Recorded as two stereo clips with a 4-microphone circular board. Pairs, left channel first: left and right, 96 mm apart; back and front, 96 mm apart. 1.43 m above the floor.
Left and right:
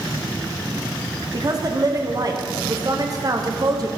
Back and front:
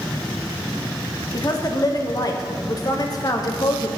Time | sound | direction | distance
1.3 | a woman speaking | 135° right | 0.9 m